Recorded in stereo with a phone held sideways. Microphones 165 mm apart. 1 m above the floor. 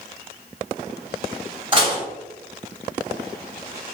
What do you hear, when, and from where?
1.7 s dishes clattering: 30° right (ahead or behind), 1.3 m